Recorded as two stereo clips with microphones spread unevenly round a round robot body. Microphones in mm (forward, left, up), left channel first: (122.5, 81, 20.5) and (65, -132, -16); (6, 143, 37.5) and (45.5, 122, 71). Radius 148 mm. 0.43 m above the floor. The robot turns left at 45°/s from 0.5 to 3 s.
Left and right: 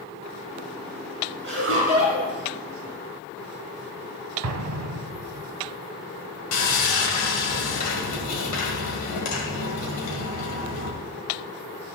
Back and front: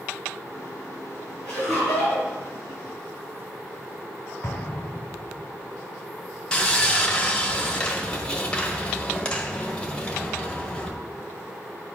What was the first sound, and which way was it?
Laughter, 80° right.